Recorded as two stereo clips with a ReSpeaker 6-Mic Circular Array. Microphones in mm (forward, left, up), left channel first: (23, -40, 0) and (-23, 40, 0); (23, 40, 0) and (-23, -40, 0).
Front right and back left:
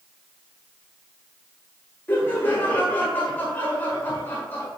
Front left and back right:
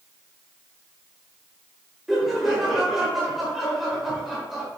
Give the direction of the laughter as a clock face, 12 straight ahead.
1 o'clock.